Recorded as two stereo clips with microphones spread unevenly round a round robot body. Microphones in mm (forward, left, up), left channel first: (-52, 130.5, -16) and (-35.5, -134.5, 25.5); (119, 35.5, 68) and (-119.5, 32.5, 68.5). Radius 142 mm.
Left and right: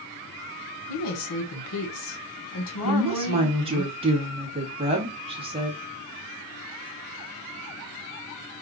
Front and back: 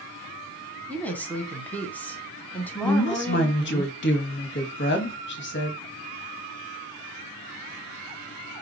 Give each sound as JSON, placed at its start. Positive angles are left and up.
{"t": 0.9, "sound": "a woman speaking", "azimuth_deg": 85, "distance_m": 1.5}
{"t": 2.8, "sound": "a woman speaking", "azimuth_deg": -15, "distance_m": 1.3}